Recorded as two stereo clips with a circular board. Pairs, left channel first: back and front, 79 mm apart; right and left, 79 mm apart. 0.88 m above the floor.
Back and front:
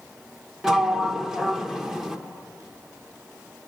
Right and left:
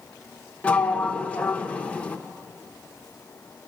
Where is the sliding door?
70° right, 0.8 m.